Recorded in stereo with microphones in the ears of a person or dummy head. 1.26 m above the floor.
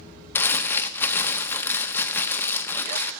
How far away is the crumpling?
About 0.7 m.